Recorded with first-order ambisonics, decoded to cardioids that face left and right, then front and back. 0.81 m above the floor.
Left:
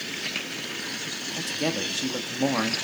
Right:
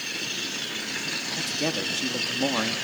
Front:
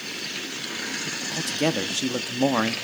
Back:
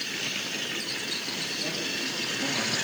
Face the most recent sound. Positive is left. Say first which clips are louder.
# left 1 dB, front 5 dB
turn(degrees=5)